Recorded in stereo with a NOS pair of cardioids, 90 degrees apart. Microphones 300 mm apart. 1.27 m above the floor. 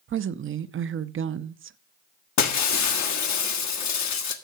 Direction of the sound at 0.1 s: 45° right.